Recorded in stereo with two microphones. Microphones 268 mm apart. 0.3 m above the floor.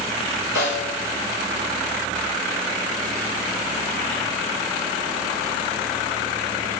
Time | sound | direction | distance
0.6 | a snare drum | 10° right (ahead or behind) | 2.5 m